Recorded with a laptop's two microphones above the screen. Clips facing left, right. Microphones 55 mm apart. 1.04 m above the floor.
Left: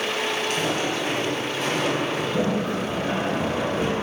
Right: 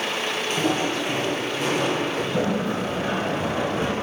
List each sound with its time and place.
0.5 s footsteps: 35° right (ahead or behind), 1.3 m; by 2.2 s 5° left (ahead or behind), 1.1 m
2.3 s a sliding door: 35° right (ahead or behind), 1.8 m